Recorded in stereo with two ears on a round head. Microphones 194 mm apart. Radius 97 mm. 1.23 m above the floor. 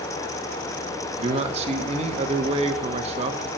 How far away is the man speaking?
About 1.6 m.